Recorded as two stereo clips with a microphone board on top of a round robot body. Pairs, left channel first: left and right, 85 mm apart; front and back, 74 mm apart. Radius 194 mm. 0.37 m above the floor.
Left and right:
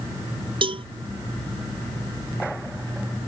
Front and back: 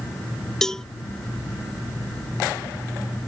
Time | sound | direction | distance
0.6 | a cowbell | 85° right | ?